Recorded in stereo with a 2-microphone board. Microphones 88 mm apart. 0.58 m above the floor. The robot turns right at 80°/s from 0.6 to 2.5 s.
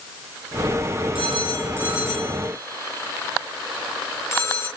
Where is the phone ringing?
75° right (ahead or behind), 6 m; by 4.7 s 30° left (ahead or behind), 6 m.